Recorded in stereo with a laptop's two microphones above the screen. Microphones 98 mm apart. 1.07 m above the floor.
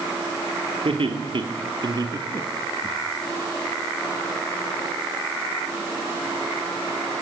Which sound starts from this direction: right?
Laughter, at 0.8 s.